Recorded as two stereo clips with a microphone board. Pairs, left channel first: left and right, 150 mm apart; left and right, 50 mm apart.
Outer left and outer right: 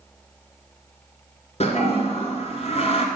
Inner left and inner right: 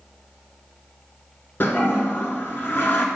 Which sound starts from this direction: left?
A toilet flushing, at 1.6 s.